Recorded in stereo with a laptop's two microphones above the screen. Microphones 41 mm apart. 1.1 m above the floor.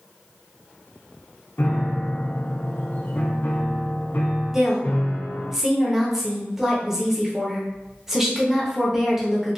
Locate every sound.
1.6 s a piano: 45° left (ahead or behind), 0.6 m
4.5 s a woman speaking: 5° right (ahead or behind), 0.8 m